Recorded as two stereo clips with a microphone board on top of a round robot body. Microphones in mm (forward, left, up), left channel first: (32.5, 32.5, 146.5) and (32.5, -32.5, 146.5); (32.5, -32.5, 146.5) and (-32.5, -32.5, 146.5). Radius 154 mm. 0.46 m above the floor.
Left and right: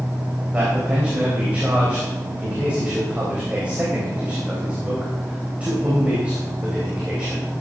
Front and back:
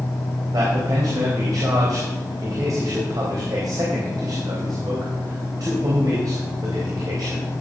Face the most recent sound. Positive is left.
turn(degrees=-160)